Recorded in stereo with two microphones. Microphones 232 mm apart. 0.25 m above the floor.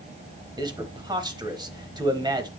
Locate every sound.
0.6 s a man speaking: 20° right (ahead or behind), 1.0 m